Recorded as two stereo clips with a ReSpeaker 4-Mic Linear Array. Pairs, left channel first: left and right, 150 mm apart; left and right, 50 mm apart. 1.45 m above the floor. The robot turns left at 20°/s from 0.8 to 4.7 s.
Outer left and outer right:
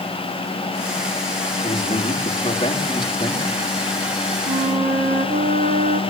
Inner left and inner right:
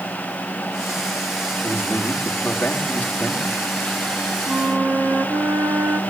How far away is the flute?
About 2 m.